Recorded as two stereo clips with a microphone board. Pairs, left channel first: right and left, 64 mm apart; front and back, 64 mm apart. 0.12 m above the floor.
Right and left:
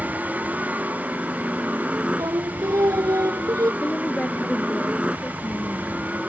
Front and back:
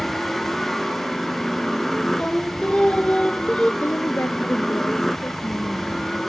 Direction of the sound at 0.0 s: 75° left.